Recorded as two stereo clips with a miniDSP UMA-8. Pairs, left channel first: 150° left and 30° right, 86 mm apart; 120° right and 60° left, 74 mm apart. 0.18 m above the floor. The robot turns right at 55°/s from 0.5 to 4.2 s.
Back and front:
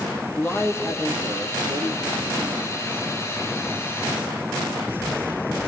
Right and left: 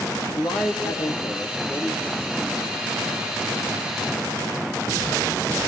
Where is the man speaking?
135° right, 5 m; by 2.6 s 15° right, 5 m.